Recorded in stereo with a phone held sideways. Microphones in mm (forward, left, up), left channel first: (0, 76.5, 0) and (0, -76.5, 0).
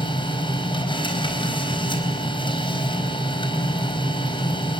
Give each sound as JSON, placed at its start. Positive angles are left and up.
{"t": 0.0, "sound": "a machine running", "side_deg": 35, "distance_m": 4.0}